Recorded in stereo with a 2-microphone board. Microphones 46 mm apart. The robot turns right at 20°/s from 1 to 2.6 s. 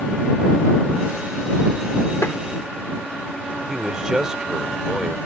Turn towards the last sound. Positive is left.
turn(degrees=-15)  # may be behind; listen again after turning